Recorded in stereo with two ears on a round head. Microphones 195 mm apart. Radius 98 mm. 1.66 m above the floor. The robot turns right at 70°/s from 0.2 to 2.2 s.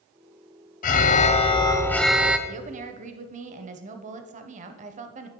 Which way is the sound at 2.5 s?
35° right (ahead or behind).